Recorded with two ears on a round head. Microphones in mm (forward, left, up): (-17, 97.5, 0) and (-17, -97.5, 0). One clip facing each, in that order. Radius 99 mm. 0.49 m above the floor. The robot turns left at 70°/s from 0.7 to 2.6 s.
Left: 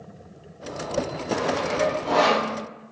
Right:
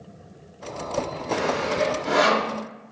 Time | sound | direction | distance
1.3 | sawing | 85° right | 0.9 m